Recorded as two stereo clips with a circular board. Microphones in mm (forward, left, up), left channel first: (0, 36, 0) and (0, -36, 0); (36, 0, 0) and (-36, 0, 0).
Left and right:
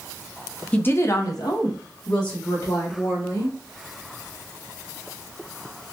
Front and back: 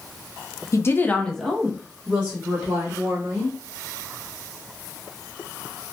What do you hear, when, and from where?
0.7 s a woman speaking: 25° left, 0.5 m; by 3.6 s 115° left, 2 m